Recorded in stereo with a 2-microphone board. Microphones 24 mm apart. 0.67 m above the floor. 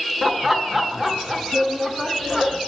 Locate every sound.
0.2 s laughter: 15° right (ahead or behind), 1.0 m